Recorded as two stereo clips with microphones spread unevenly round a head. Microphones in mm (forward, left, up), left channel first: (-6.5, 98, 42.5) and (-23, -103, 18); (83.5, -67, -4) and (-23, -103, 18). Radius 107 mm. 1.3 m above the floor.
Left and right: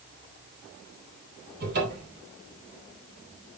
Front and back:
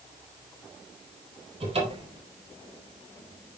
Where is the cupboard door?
135° right, 4 m.